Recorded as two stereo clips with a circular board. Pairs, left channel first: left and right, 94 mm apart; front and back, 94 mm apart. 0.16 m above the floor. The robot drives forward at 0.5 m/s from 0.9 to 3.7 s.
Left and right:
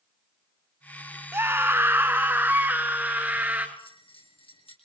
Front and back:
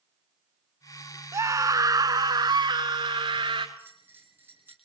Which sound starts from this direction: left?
A bell, at 3.8 s.